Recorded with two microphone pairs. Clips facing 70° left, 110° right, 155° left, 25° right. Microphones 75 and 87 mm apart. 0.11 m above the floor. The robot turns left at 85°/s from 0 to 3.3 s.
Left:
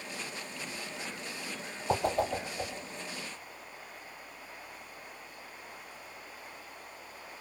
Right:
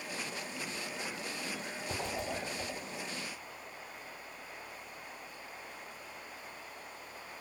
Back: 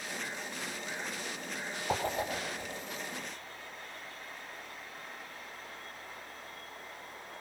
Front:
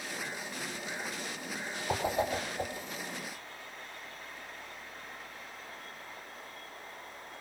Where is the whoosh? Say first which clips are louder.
Left 10 dB, front 2 dB; 70° left, 4.5 m; by 2.7 s straight ahead, 4.5 m.